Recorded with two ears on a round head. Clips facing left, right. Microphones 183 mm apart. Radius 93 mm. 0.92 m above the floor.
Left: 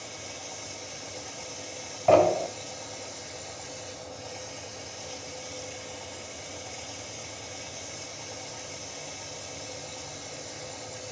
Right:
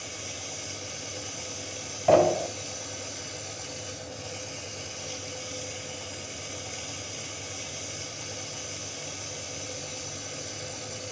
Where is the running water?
75° right (ahead or behind), 3 m.